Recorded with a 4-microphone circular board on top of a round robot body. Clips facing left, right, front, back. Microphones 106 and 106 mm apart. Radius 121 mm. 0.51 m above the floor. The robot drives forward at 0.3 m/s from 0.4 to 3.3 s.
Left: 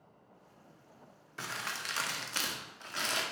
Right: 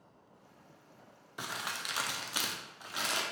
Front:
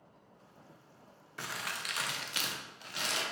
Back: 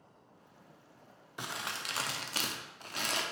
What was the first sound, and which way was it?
Crumpling, 140° right.